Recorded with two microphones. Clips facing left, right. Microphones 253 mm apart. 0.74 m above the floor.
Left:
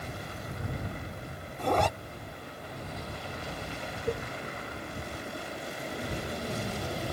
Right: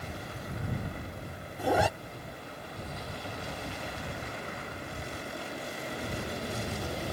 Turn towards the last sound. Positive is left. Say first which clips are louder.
# left 9 dB
turn(degrees=80)